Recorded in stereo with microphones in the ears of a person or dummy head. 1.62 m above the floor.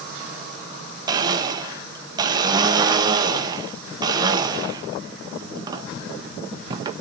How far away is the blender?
About 1.2 m.